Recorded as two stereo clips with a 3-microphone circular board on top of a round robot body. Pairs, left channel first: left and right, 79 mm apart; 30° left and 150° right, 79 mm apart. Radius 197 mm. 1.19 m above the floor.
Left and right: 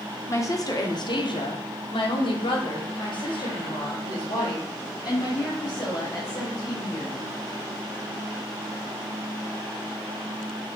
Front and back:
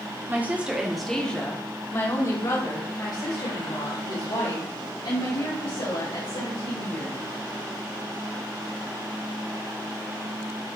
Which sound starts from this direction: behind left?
A woman speaking, at 0.3 s.